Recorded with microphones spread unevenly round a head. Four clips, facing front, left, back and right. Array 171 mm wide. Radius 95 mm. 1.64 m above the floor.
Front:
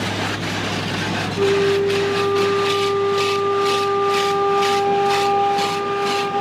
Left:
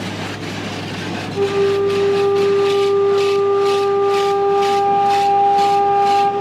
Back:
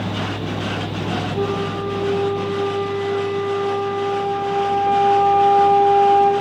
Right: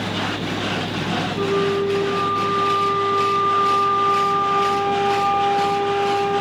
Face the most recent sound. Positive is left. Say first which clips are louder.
# left 6 dB, front 10 dB
turn(degrees=125)